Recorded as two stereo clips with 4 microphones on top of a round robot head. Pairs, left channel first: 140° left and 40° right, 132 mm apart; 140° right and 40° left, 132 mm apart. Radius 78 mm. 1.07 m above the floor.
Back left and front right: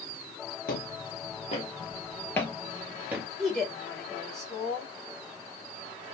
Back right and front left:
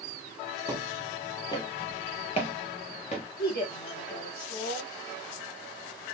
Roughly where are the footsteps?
Behind left.